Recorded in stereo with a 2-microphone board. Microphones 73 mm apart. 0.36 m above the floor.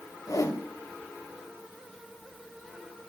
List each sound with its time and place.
0.3 s a whoosh: 50° left (ahead or behind), 0.7 m